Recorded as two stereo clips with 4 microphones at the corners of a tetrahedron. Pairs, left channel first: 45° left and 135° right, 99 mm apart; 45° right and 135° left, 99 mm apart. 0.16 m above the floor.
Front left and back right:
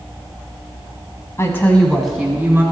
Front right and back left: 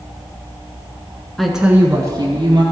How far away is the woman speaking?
About 1.2 m.